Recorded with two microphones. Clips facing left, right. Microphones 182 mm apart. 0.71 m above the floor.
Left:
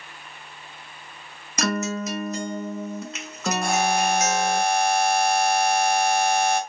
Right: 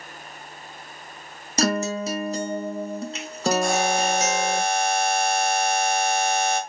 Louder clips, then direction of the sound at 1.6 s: Right 2 dB; 35° right (ahead or behind).